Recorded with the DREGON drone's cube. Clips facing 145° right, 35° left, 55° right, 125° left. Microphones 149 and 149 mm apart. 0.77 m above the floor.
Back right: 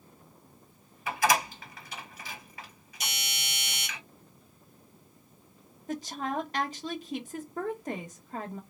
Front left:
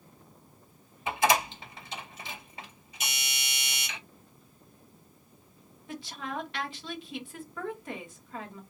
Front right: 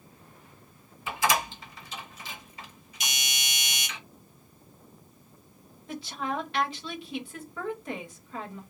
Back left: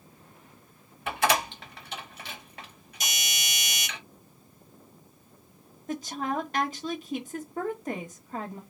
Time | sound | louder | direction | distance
1.1 | a door slam | front left 1 dB, back left 1 dB | 100° left | 1.2 m
3.0 | a doorbell | even, back left 1 dB | 165° left | 3 m
5.9 | a woman speaking | back right 5 dB, back left 2 dB | 170° left | 1.3 m